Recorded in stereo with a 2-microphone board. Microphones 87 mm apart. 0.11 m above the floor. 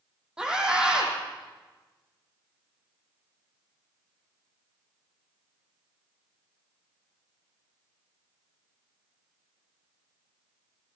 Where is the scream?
10° right (ahead or behind), 4 m.